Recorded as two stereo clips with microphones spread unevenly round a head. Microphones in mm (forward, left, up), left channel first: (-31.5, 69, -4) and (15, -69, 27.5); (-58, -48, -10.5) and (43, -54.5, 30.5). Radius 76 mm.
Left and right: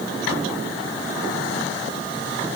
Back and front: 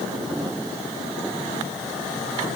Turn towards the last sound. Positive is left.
No sound to turn to.